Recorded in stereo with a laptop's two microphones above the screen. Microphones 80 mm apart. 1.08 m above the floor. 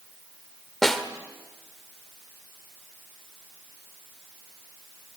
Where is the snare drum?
5° left (ahead or behind), 1.3 m.